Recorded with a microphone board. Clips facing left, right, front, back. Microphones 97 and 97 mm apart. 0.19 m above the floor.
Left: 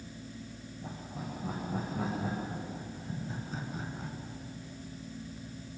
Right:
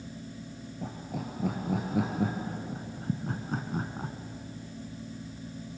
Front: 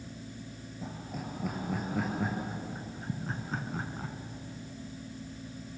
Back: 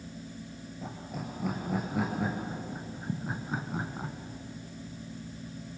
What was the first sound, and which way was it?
Laughter, 90° right.